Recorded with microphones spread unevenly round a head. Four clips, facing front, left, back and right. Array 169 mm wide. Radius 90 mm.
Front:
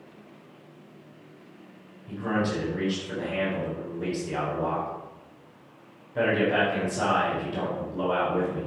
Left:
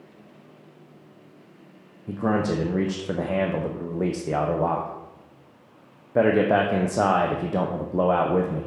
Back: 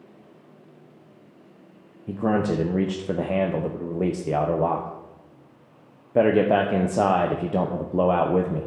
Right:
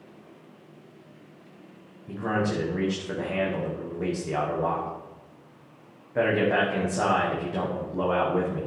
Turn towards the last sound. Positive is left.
turn(degrees=150)